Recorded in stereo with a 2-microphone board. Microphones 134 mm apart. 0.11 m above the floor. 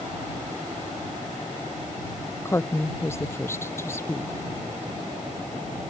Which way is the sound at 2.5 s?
20° left (ahead or behind).